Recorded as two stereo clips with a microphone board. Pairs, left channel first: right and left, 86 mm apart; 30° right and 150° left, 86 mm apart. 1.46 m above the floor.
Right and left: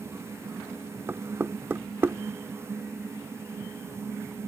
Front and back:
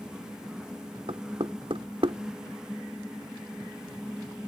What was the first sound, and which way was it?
Knocking, 150° left.